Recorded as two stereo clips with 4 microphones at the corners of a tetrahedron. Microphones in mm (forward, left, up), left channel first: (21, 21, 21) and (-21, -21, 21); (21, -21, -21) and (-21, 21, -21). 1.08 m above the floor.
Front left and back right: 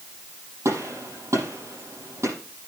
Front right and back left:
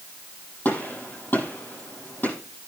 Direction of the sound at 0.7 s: 105° right.